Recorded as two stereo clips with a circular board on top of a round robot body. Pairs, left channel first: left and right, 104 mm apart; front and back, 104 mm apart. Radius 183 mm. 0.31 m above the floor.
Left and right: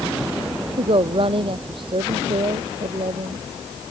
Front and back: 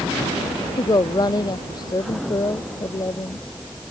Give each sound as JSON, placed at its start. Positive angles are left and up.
{"t": 0.8, "sound": "a woman speaking", "azimuth_deg": -50}